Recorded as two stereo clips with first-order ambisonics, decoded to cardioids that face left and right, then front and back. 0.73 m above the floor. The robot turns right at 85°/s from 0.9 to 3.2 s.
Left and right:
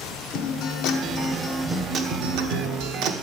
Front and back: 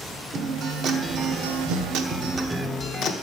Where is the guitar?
125° left, 1.1 m; by 3.1 s 45° right, 1.1 m.